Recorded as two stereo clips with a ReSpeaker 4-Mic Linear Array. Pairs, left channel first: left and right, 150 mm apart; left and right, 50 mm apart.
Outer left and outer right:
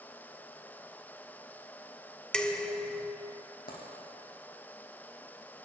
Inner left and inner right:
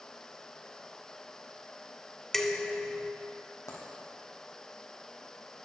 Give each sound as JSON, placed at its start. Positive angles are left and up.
{"t": 2.3, "sound": "dishes clattering", "side_deg": 5, "distance_m": 1.0}
{"t": 3.7, "sound": "a dropped coin", "side_deg": 75, "distance_m": 3.5}